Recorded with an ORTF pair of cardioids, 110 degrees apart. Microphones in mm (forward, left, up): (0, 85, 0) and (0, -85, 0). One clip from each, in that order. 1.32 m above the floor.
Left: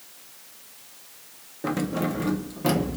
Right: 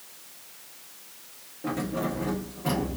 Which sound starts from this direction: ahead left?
Keys jangling, at 1.6 s.